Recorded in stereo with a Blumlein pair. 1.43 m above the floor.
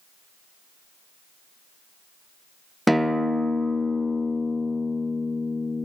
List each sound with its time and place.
2.9 s a guitar: straight ahead, 0.6 m